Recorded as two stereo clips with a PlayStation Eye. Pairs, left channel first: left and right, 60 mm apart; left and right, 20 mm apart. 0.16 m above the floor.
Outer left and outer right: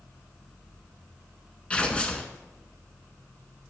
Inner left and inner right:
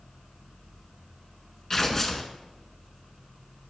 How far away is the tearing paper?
About 0.6 m.